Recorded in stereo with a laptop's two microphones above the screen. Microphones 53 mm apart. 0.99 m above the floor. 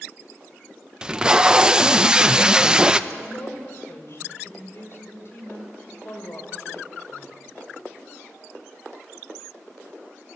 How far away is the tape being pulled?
About 0.6 m.